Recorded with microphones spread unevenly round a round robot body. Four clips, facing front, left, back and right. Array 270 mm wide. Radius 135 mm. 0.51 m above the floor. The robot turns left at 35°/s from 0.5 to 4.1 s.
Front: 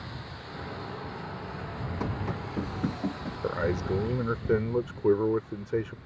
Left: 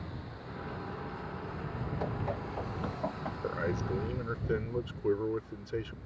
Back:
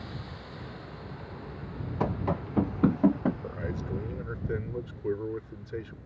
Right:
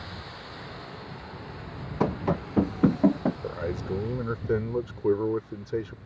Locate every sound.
2.0 s running footsteps: 90° right; by 3.3 s 130° right
3.4 s a man speaking: 5° right; by 6.0 s 30° right